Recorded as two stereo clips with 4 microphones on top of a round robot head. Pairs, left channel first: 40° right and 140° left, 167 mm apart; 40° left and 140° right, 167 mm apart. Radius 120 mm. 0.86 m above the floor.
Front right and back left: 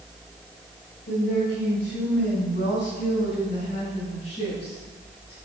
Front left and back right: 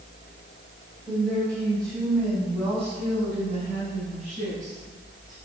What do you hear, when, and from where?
1.1 s a woman speaking: 65° right, 4.5 m; by 5.3 s 100° right, 6.5 m